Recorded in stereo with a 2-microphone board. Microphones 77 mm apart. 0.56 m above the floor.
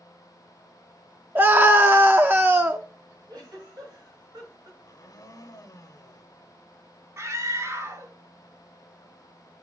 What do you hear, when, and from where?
1.4 s a scream: 30° right (ahead or behind), 0.7 m
3.3 s a giggle: 65° right (ahead or behind), 5.5 m
4.8 s a blender: 55° left (ahead or behind), 0.9 m
7.2 s a scream: 45° right (ahead or behind), 1.6 m